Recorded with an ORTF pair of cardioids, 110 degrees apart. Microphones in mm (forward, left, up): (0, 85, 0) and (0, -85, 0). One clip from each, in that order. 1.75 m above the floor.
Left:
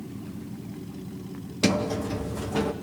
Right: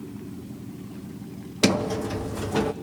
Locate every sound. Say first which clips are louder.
1.6 s a sliding door: right 2 dB; 25° right, 1.1 m